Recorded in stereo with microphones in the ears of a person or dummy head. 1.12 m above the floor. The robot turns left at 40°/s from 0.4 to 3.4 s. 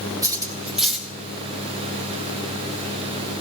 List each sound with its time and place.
0.2 s cutlery clinking: 20° right (ahead or behind), 1.8 m; by 1.1 s 10° left (ahead or behind), 1.8 m